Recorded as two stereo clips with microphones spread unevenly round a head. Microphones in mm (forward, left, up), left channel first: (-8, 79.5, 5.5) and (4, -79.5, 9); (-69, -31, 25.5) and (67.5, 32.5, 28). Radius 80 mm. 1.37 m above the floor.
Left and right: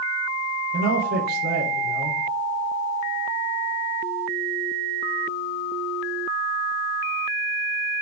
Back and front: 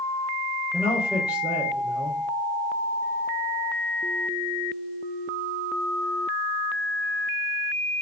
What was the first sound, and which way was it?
A man speaking, 55° right.